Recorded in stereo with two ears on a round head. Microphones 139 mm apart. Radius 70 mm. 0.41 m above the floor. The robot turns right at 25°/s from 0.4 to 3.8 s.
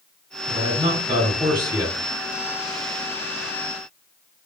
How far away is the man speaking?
About 1.7 m.